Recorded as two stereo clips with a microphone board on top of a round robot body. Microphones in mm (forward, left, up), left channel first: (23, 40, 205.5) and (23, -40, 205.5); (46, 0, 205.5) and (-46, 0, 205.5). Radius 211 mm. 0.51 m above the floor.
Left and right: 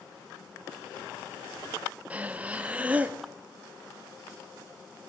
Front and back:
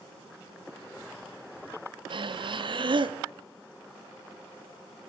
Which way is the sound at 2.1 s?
160° right.